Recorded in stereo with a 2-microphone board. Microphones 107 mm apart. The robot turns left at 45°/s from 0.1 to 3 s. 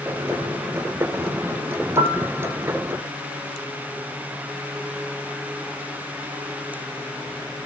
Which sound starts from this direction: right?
A piano, at 2.0 s.